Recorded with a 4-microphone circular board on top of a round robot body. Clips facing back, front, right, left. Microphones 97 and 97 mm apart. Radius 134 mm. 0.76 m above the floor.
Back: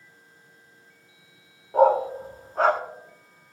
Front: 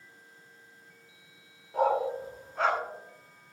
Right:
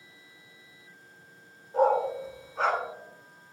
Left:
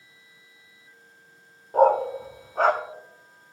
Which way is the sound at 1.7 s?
130° left.